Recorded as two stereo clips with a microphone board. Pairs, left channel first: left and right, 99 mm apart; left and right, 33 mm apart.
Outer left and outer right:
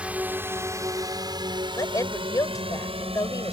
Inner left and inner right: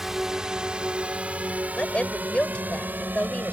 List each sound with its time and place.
0.0 s a drone: 10° right (ahead or behind); by 3.5 s 75° right (ahead or behind)
1.8 s a woman speaking: 35° left (ahead or behind)